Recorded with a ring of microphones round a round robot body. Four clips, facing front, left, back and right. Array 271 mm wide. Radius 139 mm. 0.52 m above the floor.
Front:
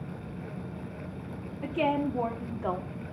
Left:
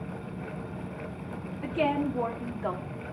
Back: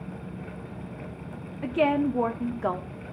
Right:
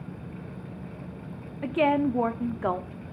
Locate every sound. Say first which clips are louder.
1.6 s a woman speaking: right 4 dB, back 4 dB; 125° right, 1.1 m